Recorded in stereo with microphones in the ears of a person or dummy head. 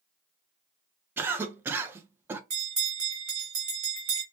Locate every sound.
1.2 s a cough: 15° right (ahead or behind), 0.5 m
2.5 s a bell: 25° right (ahead or behind), 1.6 m